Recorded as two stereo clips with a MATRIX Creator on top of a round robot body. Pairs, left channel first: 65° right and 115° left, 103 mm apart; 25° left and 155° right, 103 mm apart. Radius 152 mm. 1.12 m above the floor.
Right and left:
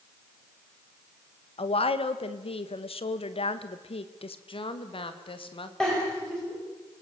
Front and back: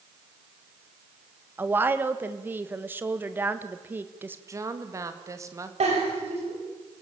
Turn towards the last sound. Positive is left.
turn(degrees=-150)